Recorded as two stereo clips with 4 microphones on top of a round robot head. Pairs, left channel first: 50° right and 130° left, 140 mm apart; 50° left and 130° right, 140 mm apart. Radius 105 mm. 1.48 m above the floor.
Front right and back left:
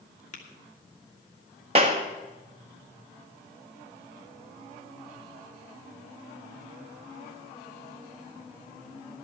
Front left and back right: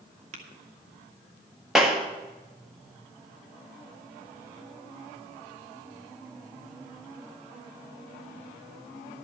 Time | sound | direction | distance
0.3 | tapping | 90° right | 1.4 m
1.8 | a clap | 145° left | 0.6 m